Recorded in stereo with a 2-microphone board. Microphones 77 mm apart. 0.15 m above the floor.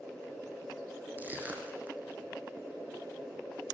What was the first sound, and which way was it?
Crushing, 25° right (ahead or behind).